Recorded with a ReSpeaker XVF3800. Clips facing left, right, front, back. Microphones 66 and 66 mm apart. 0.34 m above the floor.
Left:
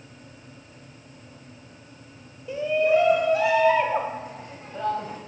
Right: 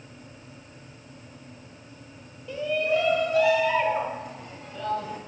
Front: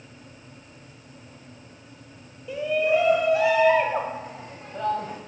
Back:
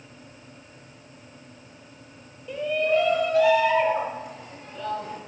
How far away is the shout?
About 1.3 m.